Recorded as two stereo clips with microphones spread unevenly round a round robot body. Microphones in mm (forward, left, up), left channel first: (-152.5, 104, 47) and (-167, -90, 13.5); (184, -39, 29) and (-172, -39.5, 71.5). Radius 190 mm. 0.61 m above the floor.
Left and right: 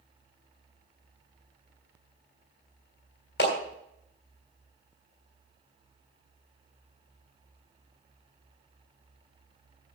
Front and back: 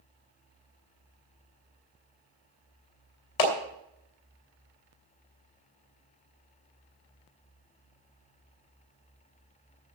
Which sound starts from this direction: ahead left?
A clap, at 3.4 s.